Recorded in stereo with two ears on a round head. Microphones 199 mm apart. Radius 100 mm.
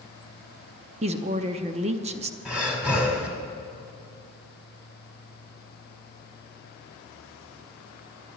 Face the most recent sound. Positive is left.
turn(degrees=-5)  # may be behind; listen again after turning